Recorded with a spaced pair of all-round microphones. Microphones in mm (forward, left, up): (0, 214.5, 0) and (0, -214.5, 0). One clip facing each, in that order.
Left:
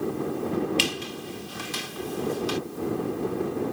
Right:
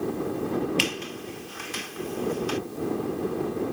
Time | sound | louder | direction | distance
0.8 | a squeak | even | 55° left (ahead or behind) | ?